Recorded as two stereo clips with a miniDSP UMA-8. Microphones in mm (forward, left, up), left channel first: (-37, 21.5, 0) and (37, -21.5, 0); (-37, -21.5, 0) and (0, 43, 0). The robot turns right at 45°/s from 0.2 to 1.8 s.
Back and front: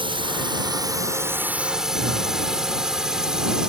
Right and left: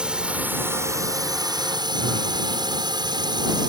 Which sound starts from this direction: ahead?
A drone, at 0.0 s.